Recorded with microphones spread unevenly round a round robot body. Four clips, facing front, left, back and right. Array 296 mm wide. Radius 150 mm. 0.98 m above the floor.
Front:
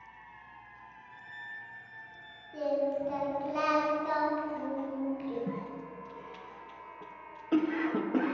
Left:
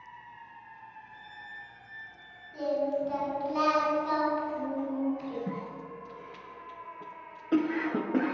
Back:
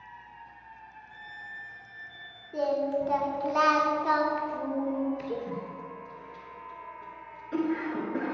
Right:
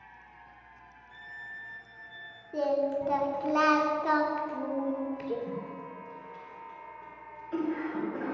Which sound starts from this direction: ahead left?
A cough, at 5.5 s.